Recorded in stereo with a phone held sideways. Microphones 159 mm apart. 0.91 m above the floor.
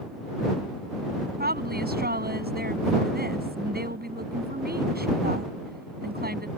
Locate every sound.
1.4 s a woman speaking: 80° right